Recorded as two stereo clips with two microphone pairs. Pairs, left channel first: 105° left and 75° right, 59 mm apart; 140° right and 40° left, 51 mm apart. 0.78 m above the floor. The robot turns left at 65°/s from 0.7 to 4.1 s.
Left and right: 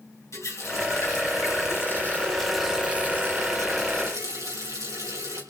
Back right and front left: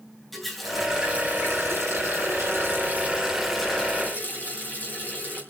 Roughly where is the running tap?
Behind left.